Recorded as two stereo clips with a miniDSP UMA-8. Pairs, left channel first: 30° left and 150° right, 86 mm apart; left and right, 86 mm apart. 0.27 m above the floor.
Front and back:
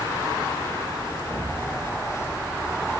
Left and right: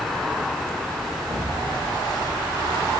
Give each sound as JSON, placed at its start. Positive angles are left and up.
{"t": 1.3, "sound": "an explosion", "azimuth_deg": -90, "distance_m": 5.0}